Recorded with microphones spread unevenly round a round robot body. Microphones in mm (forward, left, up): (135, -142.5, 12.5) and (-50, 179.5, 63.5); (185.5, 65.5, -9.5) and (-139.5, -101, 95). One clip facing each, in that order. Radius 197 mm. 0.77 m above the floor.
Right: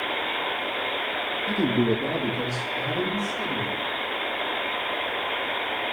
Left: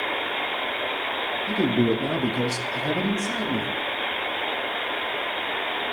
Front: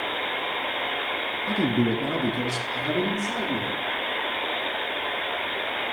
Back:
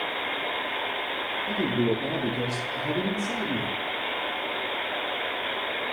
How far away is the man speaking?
About 1.4 m.